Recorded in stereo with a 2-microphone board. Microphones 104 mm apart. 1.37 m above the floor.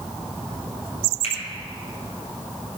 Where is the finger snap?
80° left, 5 m.